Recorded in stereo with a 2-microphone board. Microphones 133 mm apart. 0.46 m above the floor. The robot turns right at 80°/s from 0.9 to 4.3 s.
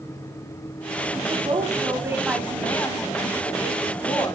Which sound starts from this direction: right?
A woman speaking, at 1.1 s.